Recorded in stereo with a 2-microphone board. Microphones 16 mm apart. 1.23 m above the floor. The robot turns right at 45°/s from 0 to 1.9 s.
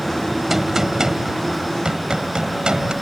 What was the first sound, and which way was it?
A gunshot, 155° right.